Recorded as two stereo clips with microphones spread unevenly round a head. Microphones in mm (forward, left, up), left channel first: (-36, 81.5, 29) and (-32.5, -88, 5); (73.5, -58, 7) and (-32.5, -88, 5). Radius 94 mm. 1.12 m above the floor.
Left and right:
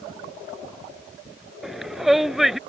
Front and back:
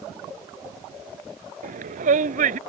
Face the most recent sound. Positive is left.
turn(degrees=180)